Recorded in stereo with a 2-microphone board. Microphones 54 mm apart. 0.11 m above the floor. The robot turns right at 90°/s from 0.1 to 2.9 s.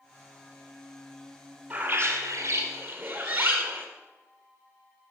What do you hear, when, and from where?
1.7 s a bird: 160° right, 1.9 m; by 3.9 s 50° right, 1.9 m